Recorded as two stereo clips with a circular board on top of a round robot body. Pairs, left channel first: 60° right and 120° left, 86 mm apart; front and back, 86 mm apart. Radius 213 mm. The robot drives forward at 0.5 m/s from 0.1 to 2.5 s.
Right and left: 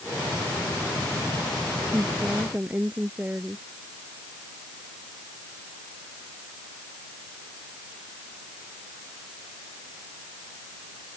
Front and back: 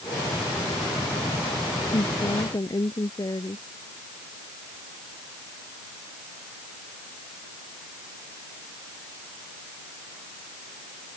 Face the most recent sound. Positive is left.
turn(degrees=45)